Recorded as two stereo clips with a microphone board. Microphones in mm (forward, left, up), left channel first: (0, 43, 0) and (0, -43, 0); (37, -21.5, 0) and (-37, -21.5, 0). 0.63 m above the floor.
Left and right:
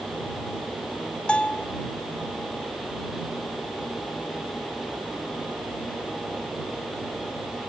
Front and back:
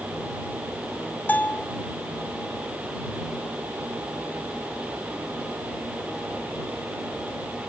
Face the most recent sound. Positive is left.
turn(degrees=30)